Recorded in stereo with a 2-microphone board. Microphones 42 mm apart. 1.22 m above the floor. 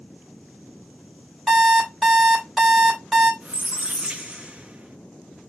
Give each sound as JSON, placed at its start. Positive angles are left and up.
{"t": 1.5, "sound": "an alarm clock", "side_deg": 5, "distance_m": 1.8}
{"t": 3.4, "sound": "a squeak", "side_deg": -30, "distance_m": 0.5}